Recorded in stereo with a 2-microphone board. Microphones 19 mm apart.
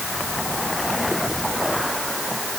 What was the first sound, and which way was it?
Only background noise.